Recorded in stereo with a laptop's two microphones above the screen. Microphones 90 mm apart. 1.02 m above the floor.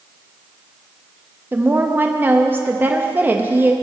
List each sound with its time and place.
1.5 s a woman speaking: 20° right (ahead or behind), 0.5 m